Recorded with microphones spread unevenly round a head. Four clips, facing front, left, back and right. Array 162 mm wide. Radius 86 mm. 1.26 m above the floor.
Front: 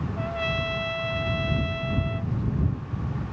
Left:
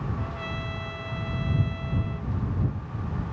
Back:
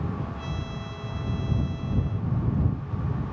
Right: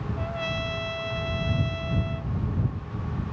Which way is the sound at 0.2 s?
20° right.